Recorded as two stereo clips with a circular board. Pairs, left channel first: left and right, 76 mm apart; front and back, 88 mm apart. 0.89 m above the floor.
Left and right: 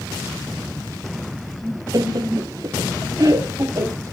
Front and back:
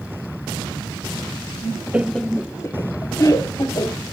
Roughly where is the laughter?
Right.